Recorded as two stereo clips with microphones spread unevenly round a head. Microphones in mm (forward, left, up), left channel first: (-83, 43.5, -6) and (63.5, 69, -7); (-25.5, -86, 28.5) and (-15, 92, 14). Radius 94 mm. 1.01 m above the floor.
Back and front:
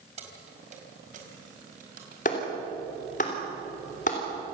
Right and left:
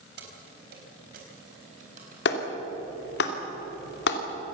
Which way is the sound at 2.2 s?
115° right.